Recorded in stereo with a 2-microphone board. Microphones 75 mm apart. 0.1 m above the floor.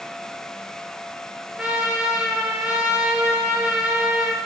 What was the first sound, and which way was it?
A trumpet, 10° right (ahead or behind).